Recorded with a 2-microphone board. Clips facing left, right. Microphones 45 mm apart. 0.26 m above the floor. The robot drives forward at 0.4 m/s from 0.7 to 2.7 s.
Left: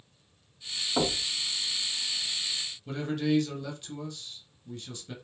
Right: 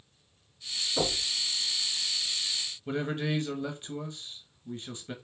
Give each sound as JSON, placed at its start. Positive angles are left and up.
{"t": 1.0, "sound": "knocking", "side_deg": 55, "distance_m": 2.0}
{"t": 2.9, "sound": "a man speaking", "side_deg": -25, "distance_m": 1.1}